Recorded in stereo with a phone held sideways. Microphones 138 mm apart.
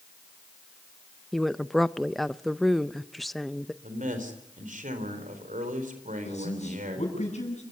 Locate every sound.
1.3 s a woman speaking: centre (ahead or behind), 0.6 m
3.8 s a man speaking: 75° right (ahead or behind), 4 m
6.2 s a man speaking: 55° left (ahead or behind), 7.5 m